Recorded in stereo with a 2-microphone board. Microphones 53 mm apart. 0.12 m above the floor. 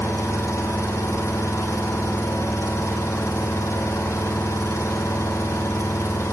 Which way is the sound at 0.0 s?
70° left (ahead or behind).